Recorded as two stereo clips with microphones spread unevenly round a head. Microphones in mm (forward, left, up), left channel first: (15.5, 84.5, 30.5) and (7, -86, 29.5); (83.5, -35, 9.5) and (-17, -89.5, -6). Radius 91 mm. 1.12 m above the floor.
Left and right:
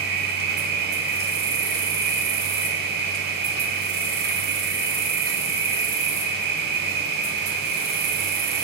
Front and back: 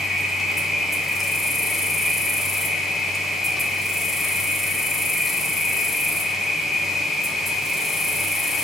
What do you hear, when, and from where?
0.0 s an insect: 60° right, 3.5 m